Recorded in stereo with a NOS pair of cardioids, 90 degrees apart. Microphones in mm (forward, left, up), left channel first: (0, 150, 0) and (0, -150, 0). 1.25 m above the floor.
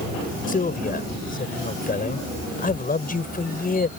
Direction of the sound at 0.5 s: 25° left.